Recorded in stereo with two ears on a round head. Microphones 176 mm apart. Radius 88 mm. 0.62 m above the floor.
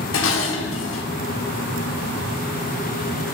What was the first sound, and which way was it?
Dishes clattering, 70° left (ahead or behind).